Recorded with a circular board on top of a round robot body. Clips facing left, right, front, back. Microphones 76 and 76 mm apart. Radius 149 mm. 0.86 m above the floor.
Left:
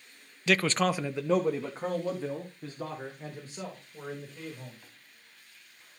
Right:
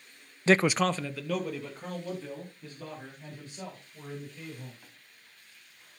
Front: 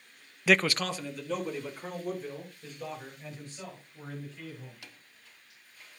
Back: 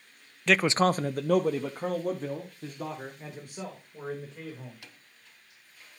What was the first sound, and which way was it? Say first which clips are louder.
A man speaking: right 2 dB, back 3 dB; 75° right.